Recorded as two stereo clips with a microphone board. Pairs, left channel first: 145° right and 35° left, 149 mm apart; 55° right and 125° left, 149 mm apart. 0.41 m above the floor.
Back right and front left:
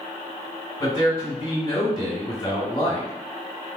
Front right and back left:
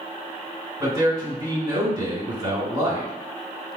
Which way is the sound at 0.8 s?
175° left.